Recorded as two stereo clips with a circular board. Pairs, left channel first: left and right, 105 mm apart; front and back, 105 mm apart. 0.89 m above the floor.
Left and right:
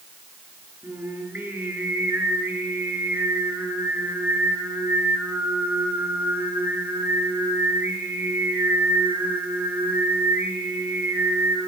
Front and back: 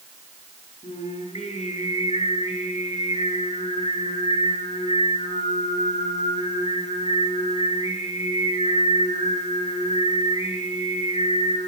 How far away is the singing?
About 7.5 m.